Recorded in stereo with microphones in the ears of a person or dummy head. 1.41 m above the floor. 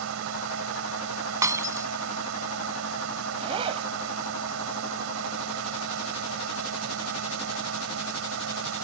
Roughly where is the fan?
Right.